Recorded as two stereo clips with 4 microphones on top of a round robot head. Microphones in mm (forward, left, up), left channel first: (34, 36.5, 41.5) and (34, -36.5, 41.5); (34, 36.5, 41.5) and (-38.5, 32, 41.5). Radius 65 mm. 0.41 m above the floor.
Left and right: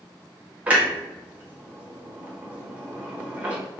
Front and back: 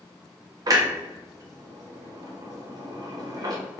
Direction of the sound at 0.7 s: 160° right.